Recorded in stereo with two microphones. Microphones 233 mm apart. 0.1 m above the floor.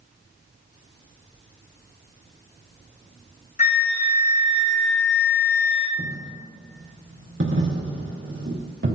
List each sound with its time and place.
3.6 s a flute: 35° left (ahead or behind), 1.3 m
6.0 s a dropped coin: 65° right (ahead or behind), 2.5 m